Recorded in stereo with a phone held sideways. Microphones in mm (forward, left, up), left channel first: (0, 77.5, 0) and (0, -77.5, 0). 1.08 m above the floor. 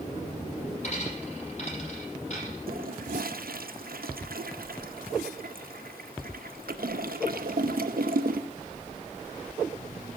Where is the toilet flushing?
80° right, 0.7 m.